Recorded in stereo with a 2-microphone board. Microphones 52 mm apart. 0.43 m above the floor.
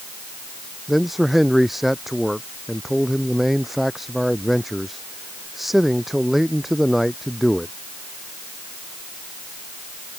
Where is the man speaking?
Centre (ahead or behind).